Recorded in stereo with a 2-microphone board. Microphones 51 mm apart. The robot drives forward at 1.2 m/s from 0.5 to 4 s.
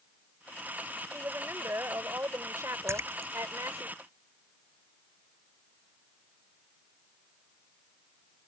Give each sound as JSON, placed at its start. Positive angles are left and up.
{"t": 1.1, "sound": "a woman speaking", "side_deg": -50}
{"t": 2.9, "sound": "a splash", "side_deg": -60}